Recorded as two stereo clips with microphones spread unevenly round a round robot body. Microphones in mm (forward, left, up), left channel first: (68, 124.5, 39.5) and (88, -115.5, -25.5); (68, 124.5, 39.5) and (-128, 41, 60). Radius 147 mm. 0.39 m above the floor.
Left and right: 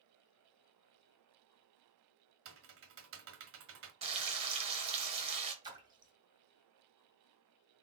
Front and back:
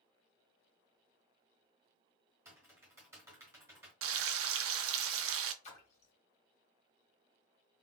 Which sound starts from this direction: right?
Typing on a keyboard, at 2.5 s.